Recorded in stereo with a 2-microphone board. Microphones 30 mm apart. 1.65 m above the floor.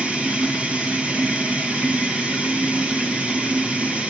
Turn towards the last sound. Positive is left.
turn(degrees=-40)  # may be behind; listen again after turning